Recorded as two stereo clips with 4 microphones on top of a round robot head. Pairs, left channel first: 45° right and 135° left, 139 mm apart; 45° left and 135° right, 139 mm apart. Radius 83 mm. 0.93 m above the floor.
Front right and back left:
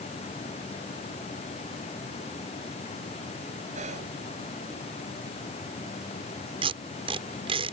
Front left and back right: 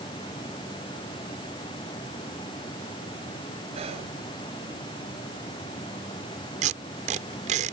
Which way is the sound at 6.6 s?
175° right.